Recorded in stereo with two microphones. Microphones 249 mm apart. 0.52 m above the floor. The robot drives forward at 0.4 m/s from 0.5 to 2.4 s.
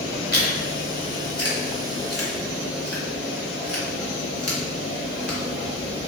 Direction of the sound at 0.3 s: 80° left.